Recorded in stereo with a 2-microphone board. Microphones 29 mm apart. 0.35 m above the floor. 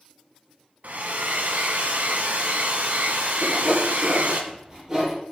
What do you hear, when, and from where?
0.8 s a hair dryer: 75° right (ahead or behind), 1.5 m
3.4 s sawing: 20° right (ahead or behind), 5.5 m